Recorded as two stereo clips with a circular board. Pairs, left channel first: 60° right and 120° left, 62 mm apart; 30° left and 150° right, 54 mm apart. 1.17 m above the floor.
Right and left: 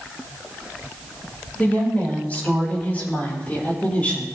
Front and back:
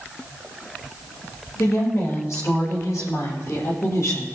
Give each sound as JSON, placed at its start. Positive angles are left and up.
{"t": 1.6, "sound": "a woman speaking", "azimuth_deg": 5, "distance_m": 5.0}